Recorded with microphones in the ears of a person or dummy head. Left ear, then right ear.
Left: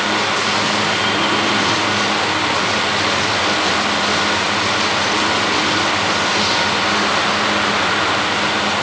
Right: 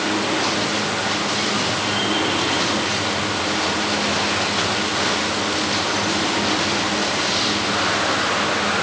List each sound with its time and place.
Only background noise.